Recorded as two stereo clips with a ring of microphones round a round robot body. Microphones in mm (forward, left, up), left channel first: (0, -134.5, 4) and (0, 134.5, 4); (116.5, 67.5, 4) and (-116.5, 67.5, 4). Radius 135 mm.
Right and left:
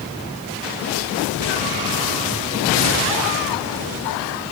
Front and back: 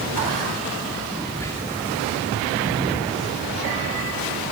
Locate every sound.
1.4 s whispering: 75° left, 1.2 m